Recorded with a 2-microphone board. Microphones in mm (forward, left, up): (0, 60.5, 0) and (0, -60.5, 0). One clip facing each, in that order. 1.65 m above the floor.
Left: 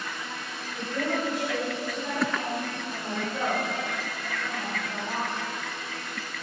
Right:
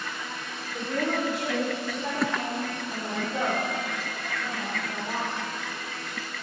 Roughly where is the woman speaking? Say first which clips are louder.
Right 1 dB; right.